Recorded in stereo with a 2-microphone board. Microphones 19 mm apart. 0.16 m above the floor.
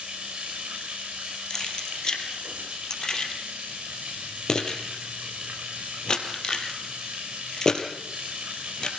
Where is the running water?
80° right, 6.5 m.